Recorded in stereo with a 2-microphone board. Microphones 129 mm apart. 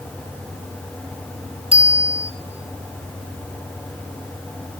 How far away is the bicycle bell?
About 4.5 m.